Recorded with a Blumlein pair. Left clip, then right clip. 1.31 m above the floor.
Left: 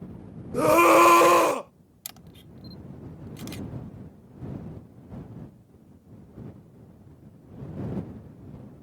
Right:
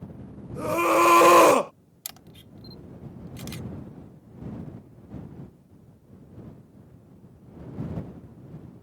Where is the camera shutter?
5° right.